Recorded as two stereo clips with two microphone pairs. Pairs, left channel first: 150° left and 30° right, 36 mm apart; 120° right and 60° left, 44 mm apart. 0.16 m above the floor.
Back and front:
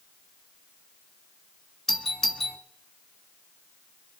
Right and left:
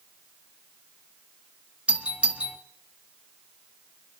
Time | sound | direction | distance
1.9 | a doorbell | 75° left | 1.7 m